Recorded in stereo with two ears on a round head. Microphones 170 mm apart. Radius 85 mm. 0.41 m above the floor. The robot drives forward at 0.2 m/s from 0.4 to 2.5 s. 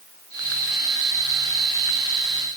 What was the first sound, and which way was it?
Only background noise.